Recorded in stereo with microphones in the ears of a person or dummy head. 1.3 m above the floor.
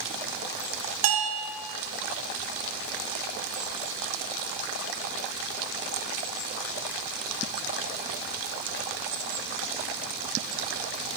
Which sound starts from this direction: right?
A bell, at 1.0 s.